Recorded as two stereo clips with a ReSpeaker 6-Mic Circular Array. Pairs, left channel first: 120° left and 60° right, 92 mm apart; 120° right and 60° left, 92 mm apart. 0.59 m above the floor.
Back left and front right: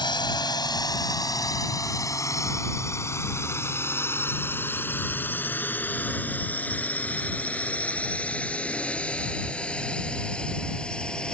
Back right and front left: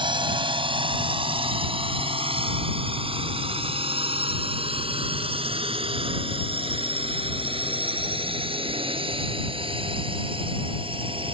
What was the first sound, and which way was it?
A drone, 85° left.